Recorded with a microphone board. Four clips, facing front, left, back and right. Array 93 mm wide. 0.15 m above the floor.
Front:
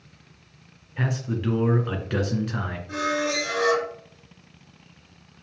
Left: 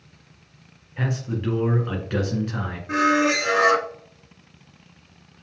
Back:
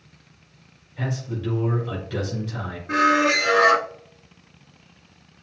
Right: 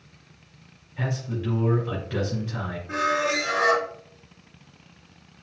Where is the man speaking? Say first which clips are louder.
Left 3 dB, front 1 dB; 30° left, 2 m.